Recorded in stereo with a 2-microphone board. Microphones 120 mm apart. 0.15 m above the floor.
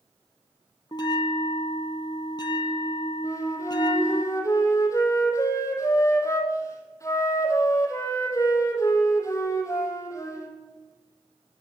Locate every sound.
0.9 s a bell: 40° left (ahead or behind), 0.7 m
3.2 s a flute: 25° left (ahead or behind), 1.3 m